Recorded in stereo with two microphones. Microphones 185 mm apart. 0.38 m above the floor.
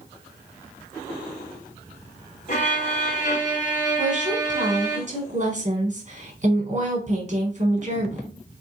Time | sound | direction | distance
2.5 | a violin | 45° left (ahead or behind) | 1.7 m
4.0 | a woman speaking | 40° right (ahead or behind) | 1.5 m